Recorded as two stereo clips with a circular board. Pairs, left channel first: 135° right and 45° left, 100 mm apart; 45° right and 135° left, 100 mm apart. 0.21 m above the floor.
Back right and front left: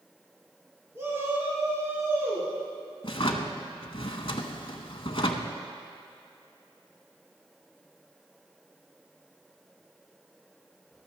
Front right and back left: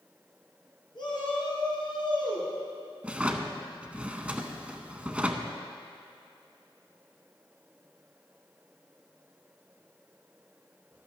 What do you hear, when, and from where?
0.9 s a shout: 15° right, 3 m
3.0 s a drawer: 150° right, 0.7 m